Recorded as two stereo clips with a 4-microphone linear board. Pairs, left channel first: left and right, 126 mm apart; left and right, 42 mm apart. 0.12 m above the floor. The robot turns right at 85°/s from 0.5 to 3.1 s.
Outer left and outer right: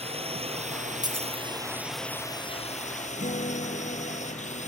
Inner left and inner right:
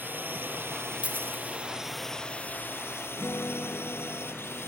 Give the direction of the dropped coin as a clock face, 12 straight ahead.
5 o'clock.